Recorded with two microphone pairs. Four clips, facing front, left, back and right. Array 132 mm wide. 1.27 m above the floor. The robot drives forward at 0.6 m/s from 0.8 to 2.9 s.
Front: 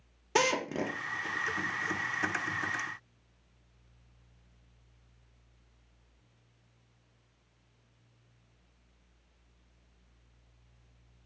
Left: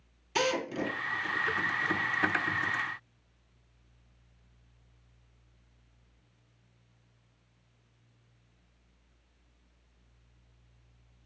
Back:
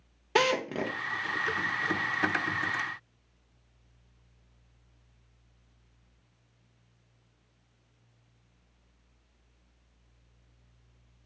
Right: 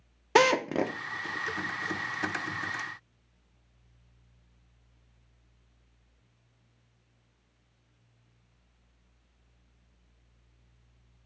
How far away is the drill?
About 0.7 m.